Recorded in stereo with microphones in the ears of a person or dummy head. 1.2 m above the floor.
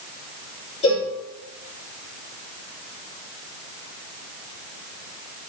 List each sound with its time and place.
0.8 s a cowbell: 35° left (ahead or behind), 3.5 m